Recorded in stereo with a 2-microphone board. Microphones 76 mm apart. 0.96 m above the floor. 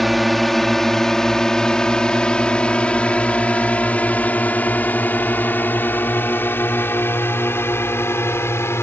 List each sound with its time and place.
0.0 s a drone: centre (ahead or behind); by 8.8 s 35° left (ahead or behind)